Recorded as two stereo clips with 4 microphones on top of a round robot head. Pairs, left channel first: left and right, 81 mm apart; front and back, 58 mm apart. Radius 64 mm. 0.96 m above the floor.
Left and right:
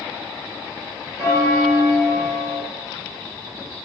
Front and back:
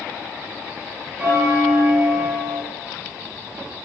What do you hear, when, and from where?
1.2 s a bell: 130° right, 0.8 m